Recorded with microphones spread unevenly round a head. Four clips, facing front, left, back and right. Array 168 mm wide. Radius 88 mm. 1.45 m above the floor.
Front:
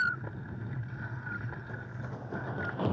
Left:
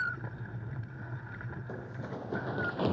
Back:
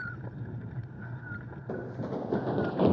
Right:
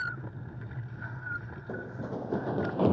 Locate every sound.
1.7 s running footsteps: 160° right; by 2.9 s 150° right